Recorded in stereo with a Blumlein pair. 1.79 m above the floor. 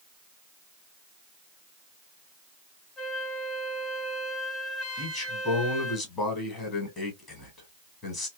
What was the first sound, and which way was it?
A flute, 25° left.